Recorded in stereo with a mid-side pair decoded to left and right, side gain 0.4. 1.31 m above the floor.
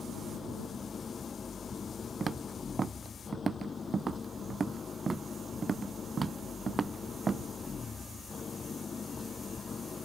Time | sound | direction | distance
0.0 | an engine running | 40° left | ?
2.2 | footsteps | 40° right | ?